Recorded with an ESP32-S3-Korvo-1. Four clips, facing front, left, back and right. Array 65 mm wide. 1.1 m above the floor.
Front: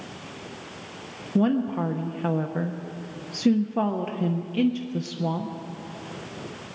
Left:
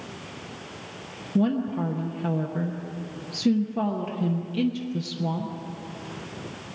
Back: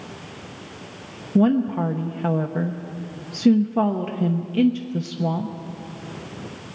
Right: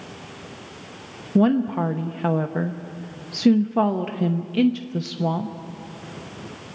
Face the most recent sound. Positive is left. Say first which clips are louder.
# right 5 dB, back 4 dB
turn(degrees=-90)